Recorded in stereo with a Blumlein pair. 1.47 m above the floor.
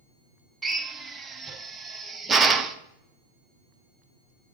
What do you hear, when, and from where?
0.6 s a drill: 15° right, 0.6 m